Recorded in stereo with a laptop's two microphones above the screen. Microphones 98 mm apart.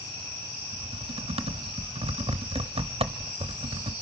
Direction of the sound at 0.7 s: 75° right (ahead or behind).